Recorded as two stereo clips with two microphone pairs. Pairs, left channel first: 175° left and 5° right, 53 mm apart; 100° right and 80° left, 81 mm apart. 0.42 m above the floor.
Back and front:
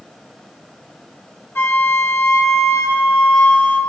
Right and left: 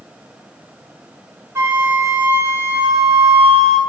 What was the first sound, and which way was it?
A flute, 135° left.